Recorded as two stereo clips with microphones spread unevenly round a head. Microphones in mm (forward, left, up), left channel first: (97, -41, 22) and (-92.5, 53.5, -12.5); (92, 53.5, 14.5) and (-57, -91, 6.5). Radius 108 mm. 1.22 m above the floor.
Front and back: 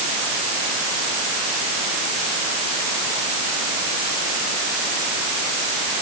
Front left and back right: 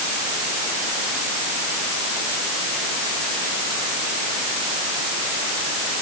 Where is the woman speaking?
I don't hear a woman speaking.